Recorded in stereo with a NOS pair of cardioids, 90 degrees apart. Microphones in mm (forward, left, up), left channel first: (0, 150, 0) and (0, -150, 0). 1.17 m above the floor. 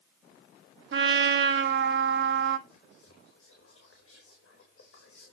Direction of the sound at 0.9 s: 40° right.